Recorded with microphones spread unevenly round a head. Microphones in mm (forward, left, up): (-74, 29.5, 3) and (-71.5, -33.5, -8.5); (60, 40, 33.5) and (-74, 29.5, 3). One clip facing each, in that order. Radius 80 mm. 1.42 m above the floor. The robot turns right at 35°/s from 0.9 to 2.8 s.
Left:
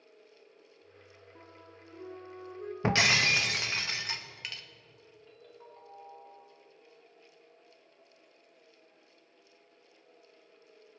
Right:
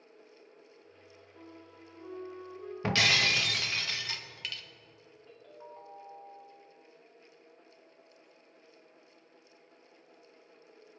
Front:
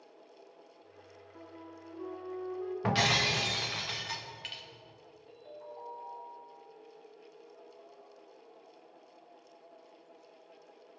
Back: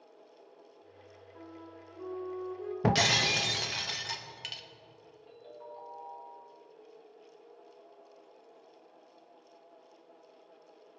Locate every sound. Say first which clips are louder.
1.4 s a flute: right 3 dB, back 1 dB; 65° left, 1.5 m; by 2.7 s 110° left, 1.5 m
2.8 s breaking glass: left 1 dB, back 3 dB; 145° left, 0.9 m
5.3 s a ringtone: right 4 dB, even; 170° right, 3 m